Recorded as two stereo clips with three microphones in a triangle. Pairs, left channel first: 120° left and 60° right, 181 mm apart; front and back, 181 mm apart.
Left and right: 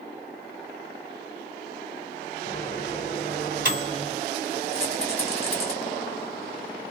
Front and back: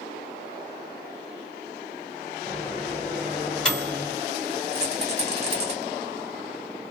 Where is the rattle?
155° left, 1.2 m.